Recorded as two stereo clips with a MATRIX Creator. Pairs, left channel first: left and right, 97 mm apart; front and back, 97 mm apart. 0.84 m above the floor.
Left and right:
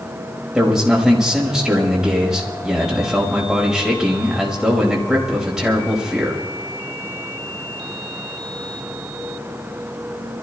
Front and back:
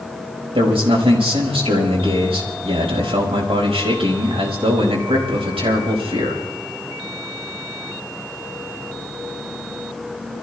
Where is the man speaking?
175° right, 4.5 m.